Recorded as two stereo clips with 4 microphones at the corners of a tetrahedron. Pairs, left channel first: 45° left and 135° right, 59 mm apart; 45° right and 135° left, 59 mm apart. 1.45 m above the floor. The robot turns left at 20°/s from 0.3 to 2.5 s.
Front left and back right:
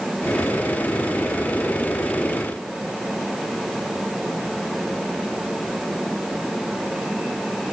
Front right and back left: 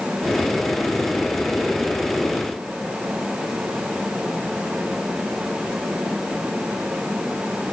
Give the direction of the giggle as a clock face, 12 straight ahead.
I don't hear a giggle.